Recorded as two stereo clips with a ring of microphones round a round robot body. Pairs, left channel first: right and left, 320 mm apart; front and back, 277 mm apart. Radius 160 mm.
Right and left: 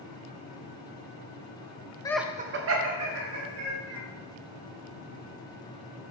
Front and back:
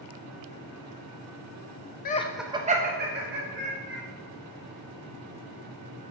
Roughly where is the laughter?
Ahead.